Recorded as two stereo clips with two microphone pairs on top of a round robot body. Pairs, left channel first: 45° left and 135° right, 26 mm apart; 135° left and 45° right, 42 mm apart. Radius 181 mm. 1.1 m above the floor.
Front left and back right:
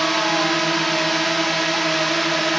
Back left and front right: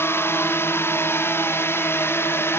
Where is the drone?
125° left.